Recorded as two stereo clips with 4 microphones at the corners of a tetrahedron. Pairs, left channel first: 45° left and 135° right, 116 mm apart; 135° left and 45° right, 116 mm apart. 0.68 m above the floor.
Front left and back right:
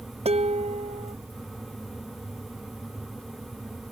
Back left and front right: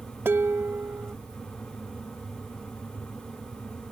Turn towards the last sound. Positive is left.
turn(degrees=-115)